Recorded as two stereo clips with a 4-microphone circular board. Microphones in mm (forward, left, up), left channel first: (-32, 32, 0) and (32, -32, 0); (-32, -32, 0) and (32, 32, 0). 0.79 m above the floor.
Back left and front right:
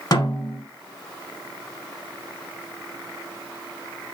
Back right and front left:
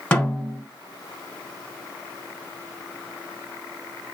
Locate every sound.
0.1 s a snare drum: 150° left, 0.9 m